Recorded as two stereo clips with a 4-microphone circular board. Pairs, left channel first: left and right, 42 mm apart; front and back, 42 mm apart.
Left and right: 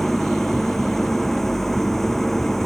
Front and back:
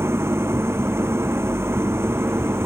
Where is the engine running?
175° left.